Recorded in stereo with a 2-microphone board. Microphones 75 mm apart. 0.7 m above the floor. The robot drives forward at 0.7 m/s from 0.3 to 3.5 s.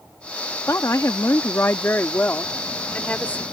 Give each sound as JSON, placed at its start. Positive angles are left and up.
{"t": 0.7, "sound": "a woman speaking", "side_deg": 40}